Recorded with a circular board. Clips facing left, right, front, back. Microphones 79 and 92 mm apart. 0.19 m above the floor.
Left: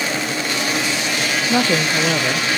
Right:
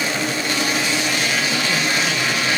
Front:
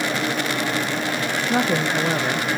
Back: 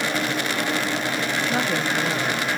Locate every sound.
1.5 s a woman speaking: 70° left